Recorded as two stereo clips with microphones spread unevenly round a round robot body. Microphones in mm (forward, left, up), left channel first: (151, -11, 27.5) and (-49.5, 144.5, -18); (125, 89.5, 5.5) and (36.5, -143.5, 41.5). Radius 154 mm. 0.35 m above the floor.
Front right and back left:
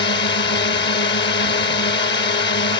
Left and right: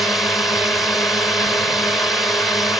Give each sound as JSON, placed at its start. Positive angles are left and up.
{"t": 0.0, "sound": "a drone", "azimuth_deg": -10}